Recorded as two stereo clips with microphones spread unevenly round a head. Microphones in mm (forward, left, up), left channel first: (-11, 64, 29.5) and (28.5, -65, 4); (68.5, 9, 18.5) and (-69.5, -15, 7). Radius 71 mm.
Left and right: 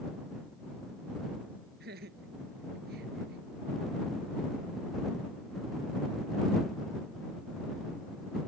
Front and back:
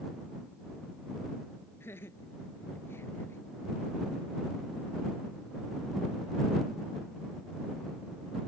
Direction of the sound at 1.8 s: 65° right.